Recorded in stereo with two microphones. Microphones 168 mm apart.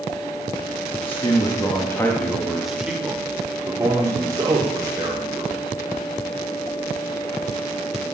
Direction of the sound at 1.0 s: 30° left (ahead or behind).